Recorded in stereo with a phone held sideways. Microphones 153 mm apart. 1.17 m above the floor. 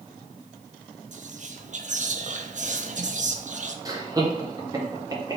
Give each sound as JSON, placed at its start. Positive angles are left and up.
{"t": 1.1, "sound": "whispering", "side_deg": -55, "distance_m": 0.5}
{"t": 3.9, "sound": "laughter", "side_deg": -25, "distance_m": 0.9}